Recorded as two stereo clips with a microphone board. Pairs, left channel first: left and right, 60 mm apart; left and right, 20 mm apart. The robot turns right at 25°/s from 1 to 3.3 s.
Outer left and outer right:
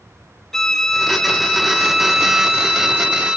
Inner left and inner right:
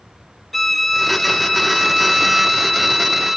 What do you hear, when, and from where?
0.5 s a violin: 5° left (ahead or behind), 0.5 m; by 3.4 s 20° right (ahead or behind), 0.5 m